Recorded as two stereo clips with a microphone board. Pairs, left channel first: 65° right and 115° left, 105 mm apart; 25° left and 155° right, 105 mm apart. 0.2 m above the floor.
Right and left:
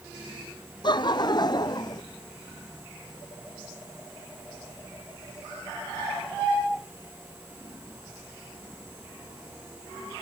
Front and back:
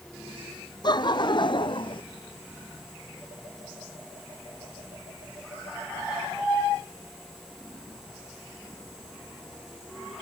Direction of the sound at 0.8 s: 25° right.